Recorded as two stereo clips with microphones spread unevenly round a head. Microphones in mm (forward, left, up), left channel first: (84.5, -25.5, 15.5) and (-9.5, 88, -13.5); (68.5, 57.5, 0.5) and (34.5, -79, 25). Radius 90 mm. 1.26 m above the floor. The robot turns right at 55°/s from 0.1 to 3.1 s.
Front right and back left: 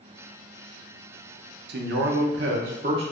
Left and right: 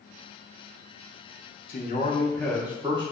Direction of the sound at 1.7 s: 120° left.